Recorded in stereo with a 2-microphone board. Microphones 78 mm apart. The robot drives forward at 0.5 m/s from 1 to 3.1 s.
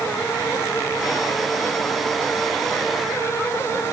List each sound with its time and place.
Only background noise.